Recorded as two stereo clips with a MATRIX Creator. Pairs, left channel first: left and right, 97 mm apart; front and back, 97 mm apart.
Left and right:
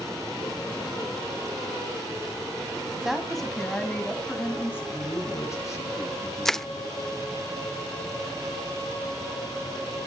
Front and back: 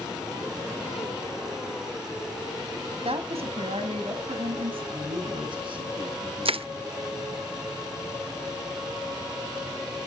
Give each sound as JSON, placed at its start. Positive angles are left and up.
{"t": 3.0, "sound": "a woman speaking", "azimuth_deg": -175, "distance_m": 3.0}
{"t": 4.9, "sound": "a man speaking", "azimuth_deg": 150, "distance_m": 5.5}
{"t": 6.5, "sound": "crushing", "azimuth_deg": 175, "distance_m": 0.6}